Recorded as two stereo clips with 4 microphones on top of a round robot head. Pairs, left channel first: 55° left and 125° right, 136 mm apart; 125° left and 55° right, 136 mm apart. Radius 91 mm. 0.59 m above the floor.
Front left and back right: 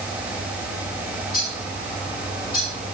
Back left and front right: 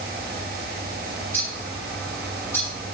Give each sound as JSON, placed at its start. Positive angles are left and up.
{"t": 1.3, "sound": "a bird", "azimuth_deg": 55, "distance_m": 7.0}